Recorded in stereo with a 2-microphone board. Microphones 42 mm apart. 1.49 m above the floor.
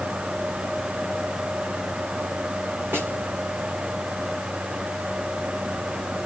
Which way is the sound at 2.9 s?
65° right (ahead or behind).